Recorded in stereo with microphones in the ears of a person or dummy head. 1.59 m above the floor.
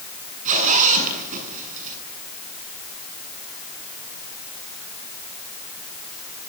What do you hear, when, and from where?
0.5 s a zipper: 40° right (ahead or behind), 8.5 m